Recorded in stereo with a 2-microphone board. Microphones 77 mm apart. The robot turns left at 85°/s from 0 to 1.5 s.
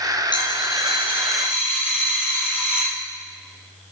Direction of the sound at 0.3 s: 85° left.